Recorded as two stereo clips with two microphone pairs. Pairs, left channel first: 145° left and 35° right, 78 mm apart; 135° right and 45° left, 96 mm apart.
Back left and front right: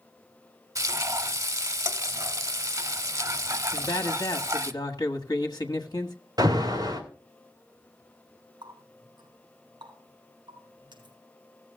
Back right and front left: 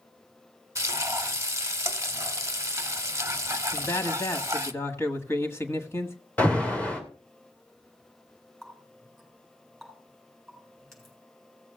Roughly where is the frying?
Ahead.